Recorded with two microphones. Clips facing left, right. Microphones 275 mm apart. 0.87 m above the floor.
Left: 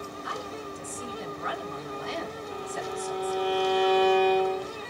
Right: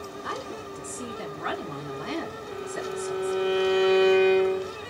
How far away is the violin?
About 1.0 m.